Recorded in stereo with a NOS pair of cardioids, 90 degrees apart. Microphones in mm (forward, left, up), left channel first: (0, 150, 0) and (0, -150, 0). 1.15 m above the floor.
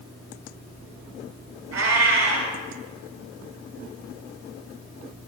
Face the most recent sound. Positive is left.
turn(degrees=-60)